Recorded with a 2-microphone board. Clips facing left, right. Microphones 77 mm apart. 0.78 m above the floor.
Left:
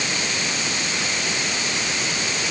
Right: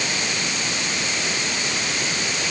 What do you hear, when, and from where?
Only background noise.